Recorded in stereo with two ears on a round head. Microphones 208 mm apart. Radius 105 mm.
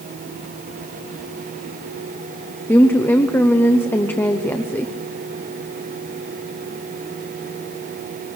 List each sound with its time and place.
2.7 s a woman speaking: 10° left (ahead or behind), 0.9 m